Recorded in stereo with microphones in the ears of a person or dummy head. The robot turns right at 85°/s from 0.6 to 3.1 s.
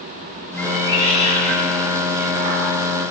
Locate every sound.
0.6 s a cat meowing: 170° left, 3 m; by 2.7 s 15° right, 3 m